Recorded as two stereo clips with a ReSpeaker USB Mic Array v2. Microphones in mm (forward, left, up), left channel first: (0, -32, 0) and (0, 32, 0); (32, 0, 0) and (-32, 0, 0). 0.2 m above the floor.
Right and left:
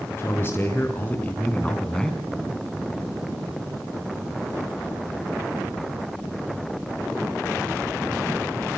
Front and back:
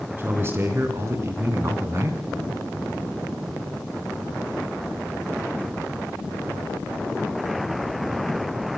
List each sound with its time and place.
0.2 s a man speaking: 135° right, 3 m; by 2.2 s 170° right, 2.5 m